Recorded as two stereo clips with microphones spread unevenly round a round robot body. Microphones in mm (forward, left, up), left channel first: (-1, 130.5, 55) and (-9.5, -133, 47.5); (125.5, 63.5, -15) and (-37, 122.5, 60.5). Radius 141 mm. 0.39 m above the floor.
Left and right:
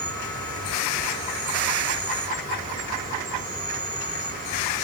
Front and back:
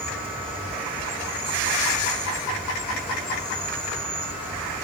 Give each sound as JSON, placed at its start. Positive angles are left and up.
{"t": 0.0, "sound": "an insect", "azimuth_deg": -85, "distance_m": 1.7}